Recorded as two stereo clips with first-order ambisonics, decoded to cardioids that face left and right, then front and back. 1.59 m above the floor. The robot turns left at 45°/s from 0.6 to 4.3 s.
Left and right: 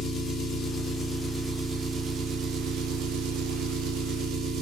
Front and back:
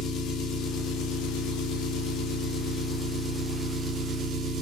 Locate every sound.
0.0 s an engine running: 35° left, 0.8 m; by 4.6 s 135° right, 0.8 m